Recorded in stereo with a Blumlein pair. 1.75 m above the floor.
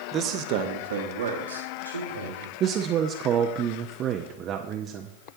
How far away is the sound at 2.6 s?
About 0.7 m.